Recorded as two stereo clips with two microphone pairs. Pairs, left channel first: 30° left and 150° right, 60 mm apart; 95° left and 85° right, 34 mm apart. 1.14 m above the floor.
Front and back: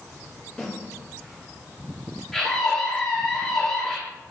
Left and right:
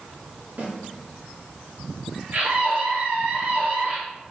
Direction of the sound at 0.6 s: 50° right.